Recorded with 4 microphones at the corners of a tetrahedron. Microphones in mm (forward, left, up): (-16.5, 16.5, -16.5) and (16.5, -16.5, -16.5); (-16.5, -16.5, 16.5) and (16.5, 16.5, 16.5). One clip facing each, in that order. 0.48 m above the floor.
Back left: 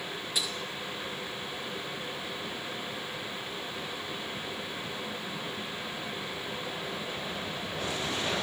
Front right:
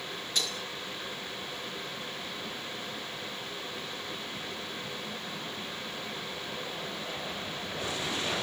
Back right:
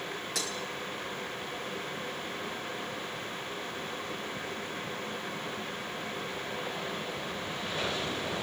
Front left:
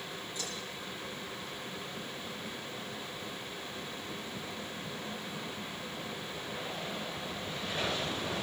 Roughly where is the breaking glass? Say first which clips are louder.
Front right 1 dB, back right 5 dB; behind right.